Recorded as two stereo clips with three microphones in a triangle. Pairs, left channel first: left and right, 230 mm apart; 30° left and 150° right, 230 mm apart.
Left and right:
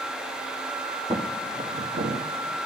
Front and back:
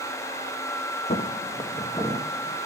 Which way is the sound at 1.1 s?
20° right.